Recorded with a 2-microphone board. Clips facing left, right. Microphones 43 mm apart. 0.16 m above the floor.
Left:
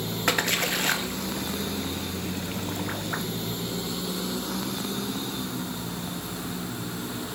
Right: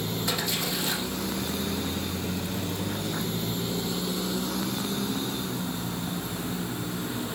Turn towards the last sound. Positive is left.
turn(degrees=55)  # may be behind; listen again after turning